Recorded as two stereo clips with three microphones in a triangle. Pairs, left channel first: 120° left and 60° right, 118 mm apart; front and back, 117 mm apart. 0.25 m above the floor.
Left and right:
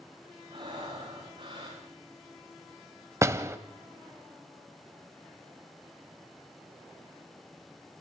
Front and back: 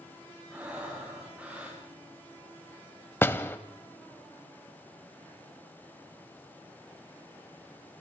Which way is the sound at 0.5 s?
100° right.